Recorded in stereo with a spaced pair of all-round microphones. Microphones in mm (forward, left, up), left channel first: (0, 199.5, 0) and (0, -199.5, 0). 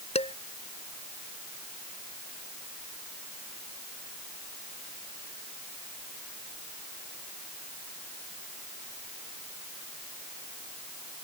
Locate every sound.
0.1 s dishes clattering: 15° left (ahead or behind)